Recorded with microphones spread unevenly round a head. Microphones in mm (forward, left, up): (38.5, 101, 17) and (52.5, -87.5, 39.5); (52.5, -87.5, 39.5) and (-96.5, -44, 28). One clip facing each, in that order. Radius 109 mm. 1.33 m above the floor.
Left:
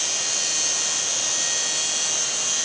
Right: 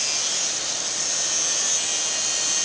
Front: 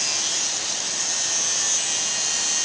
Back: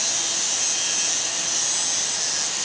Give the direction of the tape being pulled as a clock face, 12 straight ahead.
I don't hear tape being pulled.